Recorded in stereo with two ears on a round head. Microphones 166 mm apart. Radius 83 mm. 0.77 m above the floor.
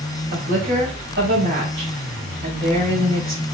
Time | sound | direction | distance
0.3 | a woman speaking | 55° right (ahead or behind) | 4.5 m